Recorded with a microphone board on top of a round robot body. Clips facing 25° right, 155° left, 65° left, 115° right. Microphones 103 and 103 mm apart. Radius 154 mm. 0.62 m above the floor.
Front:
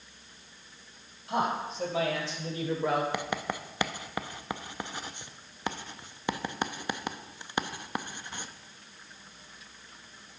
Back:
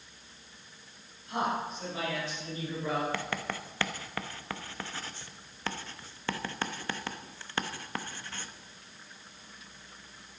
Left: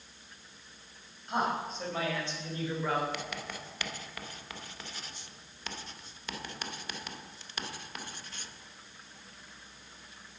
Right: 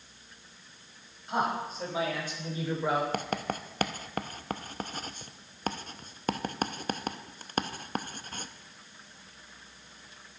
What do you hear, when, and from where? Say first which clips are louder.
1.3 s a man speaking: front 2 dB, right 1 dB; 25° right, 5.5 m; by 3.0 s 40° right, 3.5 m
3.1 s writing: front 2 dB, right 7 dB; 90° right, 0.9 m